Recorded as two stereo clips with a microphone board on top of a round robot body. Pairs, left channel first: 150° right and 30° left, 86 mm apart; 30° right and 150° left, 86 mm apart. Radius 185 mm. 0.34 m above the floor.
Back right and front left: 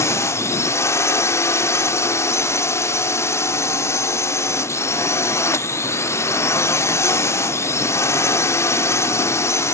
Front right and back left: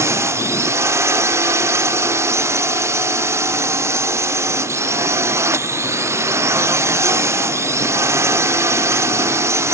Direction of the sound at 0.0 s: Straight behind.